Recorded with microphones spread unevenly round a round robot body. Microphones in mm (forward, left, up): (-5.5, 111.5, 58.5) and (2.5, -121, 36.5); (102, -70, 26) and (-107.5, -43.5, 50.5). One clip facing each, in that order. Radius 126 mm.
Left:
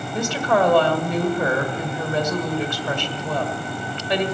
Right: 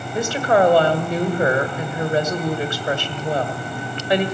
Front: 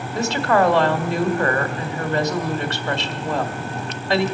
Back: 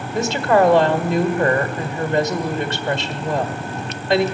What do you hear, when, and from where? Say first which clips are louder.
0.1 s a woman speaking: right 3 dB, back 3 dB; 160° right, 1.6 m